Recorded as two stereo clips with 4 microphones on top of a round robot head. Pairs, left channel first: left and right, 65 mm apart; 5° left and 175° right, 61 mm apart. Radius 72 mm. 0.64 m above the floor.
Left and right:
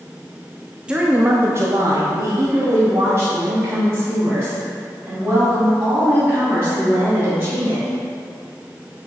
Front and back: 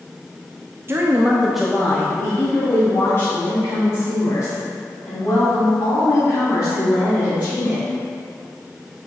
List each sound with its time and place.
0.9 s a woman speaking: 155° right, 0.8 m; by 7.8 s 35° right, 5.5 m